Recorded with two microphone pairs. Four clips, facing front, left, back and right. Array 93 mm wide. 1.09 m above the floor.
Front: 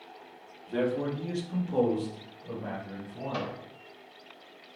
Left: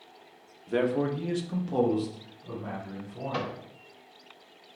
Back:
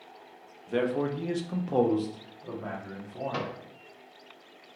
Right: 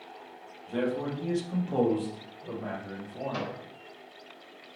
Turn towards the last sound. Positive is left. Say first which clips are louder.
# left 4 dB, front 2 dB
turn(degrees=160)